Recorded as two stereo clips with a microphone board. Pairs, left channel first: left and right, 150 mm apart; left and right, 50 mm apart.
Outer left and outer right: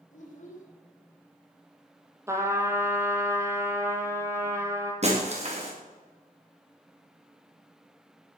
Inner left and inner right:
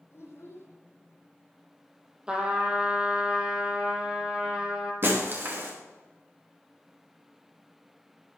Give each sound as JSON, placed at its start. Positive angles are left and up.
{"t": 0.1, "sound": "a child speaking", "side_deg": 55, "distance_m": 5.5}
{"t": 2.3, "sound": "a trumpet", "side_deg": -20, "distance_m": 2.5}
{"t": 5.0, "sound": "breaking glass", "side_deg": -50, "distance_m": 5.5}